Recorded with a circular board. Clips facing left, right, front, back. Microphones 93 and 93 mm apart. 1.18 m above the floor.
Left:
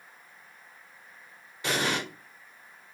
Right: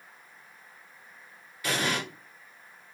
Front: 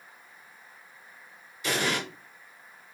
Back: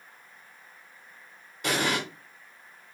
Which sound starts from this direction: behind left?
An explosion, at 1.6 s.